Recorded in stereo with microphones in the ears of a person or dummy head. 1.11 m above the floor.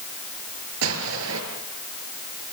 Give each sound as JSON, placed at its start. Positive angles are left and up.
{"t": 0.8, "sound": "an explosion", "side_deg": -80, "distance_m": 6.5}